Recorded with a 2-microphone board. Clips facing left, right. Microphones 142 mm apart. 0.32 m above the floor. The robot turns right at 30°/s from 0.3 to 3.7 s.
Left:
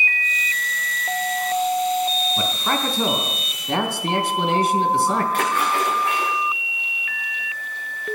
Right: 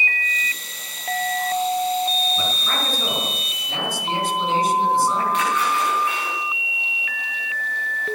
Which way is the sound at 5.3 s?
50° left (ahead or behind).